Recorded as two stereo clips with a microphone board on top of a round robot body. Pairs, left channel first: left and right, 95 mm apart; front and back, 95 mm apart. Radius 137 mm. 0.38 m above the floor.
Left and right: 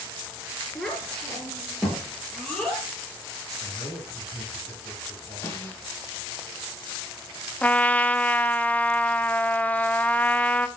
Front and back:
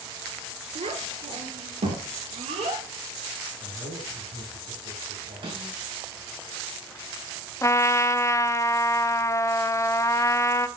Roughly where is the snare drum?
Behind left.